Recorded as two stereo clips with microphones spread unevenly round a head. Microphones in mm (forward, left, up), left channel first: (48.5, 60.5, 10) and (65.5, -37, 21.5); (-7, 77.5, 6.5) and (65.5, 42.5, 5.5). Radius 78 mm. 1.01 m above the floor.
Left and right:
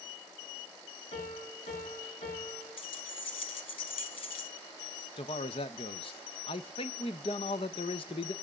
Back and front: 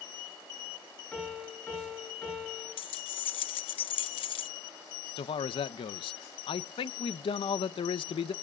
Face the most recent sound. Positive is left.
turn(degrees=145)